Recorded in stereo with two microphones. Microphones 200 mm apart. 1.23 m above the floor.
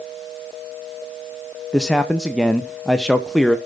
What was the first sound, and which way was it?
A man speaking, centre (ahead or behind).